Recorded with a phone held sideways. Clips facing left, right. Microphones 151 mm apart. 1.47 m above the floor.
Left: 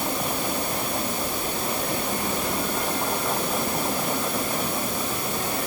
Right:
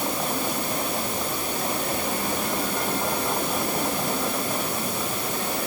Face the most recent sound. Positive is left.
No sound to turn to.